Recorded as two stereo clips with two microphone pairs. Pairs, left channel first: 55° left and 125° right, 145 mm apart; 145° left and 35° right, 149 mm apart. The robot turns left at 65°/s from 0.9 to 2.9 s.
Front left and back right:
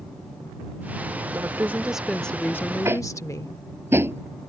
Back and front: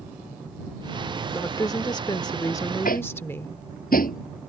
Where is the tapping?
165° left; by 4.2 s 160° left.